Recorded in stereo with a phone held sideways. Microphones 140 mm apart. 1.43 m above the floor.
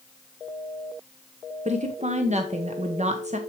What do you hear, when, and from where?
1.6 s a woman speaking: 55° right (ahead or behind), 1.0 m